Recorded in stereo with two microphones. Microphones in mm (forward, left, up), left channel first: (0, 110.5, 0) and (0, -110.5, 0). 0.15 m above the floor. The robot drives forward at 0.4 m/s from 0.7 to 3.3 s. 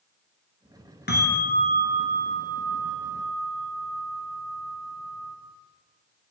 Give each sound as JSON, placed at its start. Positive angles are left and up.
{"t": 1.1, "sound": "a bell", "side_deg": 50, "distance_m": 1.4}